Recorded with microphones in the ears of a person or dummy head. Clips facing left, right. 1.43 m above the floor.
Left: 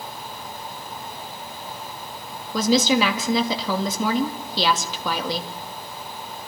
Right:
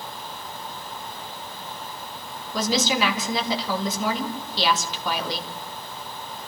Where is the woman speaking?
70° left (ahead or behind), 2.5 m.